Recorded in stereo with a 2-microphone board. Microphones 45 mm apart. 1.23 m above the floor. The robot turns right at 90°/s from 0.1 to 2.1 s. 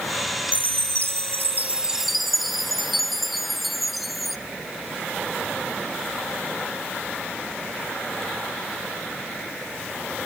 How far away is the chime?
About 0.5 m.